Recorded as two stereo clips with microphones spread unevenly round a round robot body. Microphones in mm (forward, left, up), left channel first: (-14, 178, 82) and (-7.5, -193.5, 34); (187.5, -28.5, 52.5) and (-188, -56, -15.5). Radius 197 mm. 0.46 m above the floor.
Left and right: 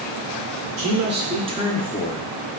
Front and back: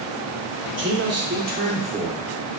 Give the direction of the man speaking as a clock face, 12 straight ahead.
4 o'clock.